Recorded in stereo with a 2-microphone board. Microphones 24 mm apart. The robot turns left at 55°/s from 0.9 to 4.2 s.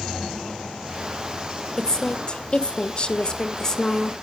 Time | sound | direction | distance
1.8 | a woman speaking | 140° left | 1.1 m